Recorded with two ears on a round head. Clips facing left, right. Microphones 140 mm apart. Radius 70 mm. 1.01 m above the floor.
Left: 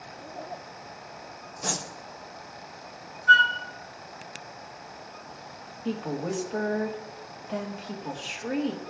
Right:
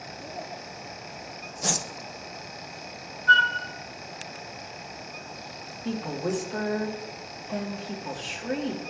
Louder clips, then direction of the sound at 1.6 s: Right 2 dB; 20° right (ahead or behind).